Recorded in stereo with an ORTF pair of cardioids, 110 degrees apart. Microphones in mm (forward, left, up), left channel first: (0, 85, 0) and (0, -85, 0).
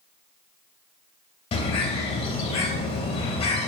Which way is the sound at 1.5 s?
40° left.